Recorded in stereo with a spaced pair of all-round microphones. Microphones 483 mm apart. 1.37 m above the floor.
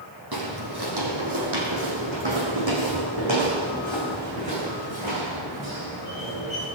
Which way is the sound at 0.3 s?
50° right (ahead or behind).